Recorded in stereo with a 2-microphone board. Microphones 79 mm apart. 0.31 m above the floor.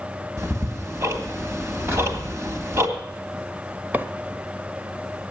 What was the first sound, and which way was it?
Ticking, 40° right (ahead or behind).